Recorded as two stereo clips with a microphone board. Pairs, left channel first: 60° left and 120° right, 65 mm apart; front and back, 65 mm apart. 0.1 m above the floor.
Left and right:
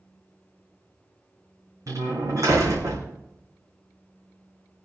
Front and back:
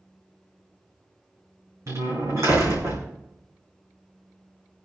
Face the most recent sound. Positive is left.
turn(degrees=-145)